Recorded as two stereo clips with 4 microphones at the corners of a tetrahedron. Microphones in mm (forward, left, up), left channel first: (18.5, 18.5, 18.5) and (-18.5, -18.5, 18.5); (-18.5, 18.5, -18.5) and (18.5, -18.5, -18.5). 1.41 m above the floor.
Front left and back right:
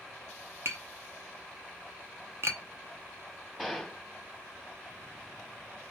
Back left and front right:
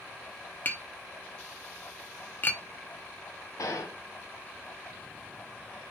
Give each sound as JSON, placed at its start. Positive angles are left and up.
{"t": 0.7, "sound": "tapping", "azimuth_deg": -170, "distance_m": 0.6}
{"t": 3.6, "sound": "a gunshot", "azimuth_deg": 145, "distance_m": 1.2}